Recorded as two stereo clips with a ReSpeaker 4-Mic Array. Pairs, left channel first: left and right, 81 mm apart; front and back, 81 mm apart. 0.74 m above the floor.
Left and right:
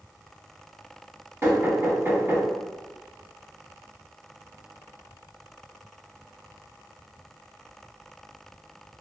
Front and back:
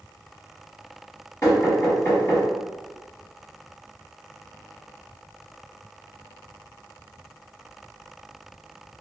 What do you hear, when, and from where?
1.4 s knocking: 40° right, 1.8 m